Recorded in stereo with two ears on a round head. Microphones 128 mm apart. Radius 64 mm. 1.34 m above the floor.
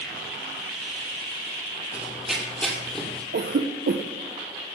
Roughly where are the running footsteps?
Centre.